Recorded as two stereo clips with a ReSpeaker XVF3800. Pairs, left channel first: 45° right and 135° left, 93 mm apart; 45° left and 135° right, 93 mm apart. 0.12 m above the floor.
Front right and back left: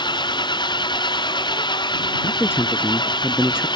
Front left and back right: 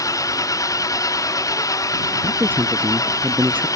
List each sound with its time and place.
0.0 s an engine running: 10° right
2.2 s a man speaking: 85° right